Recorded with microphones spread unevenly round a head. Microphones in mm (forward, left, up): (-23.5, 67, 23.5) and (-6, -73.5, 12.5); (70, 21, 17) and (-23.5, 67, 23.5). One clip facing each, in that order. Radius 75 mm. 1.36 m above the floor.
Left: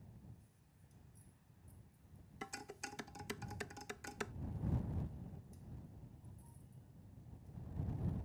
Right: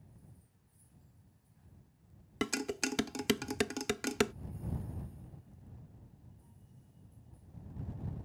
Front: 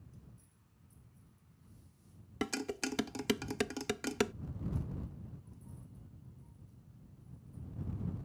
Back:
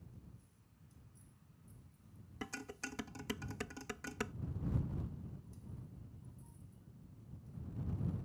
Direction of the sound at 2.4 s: 75° right.